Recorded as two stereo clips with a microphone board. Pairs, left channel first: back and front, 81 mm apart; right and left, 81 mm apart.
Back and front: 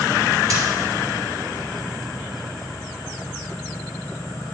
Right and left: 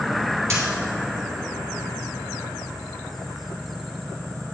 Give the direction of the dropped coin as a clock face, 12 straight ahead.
11 o'clock.